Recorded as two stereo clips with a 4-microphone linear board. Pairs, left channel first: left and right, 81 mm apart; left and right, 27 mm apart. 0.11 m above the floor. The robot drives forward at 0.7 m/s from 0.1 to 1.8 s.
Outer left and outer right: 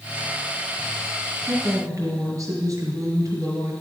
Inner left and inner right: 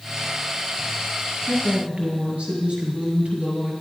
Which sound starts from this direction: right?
A woman speaking, at 1.4 s.